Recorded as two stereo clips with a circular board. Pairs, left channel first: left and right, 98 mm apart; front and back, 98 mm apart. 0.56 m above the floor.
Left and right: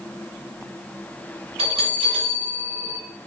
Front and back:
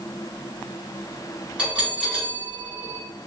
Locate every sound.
1.6 s a bell: 100° right, 1.4 m